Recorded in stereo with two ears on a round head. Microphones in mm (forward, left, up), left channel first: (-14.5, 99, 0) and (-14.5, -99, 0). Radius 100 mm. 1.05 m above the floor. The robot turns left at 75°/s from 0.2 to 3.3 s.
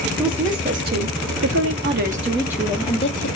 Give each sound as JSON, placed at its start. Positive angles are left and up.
{"t": 0.2, "sound": "a woman speaking", "azimuth_deg": 5, "distance_m": 0.7}